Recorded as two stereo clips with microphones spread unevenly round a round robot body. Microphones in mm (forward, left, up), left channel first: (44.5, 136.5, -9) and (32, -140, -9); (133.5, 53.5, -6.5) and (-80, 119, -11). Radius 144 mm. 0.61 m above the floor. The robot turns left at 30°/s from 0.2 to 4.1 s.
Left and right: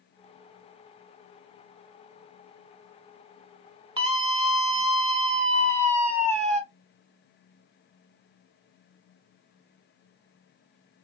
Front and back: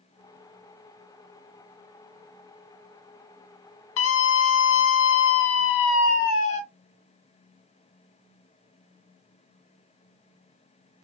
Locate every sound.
4.0 s a scream: 25° right, 1.5 m; by 6.6 s 30° right, 1.5 m